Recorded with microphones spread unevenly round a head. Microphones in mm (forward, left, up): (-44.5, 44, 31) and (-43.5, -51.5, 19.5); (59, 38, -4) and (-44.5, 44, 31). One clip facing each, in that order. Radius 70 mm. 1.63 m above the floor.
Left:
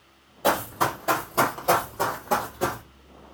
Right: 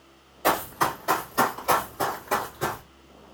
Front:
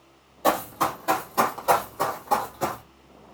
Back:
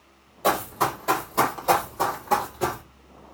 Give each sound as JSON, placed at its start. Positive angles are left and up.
{"t": 0.4, "sound": "running footsteps", "azimuth_deg": 110, "distance_m": 1.9}